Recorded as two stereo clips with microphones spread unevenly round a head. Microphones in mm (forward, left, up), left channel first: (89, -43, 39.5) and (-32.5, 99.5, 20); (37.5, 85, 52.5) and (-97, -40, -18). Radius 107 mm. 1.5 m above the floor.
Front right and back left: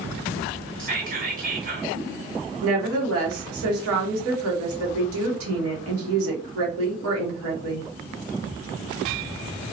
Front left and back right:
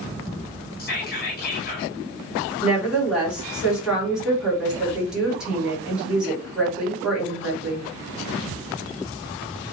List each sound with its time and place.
0.8 s whispering: 85° left, 1.3 m
2.6 s a woman speaking: 135° left, 1.5 m